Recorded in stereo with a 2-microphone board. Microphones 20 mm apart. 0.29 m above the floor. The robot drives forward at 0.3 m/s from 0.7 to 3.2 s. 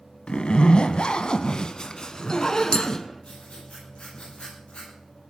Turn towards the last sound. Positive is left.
turn(degrees=55)  # may be behind; listen again after turning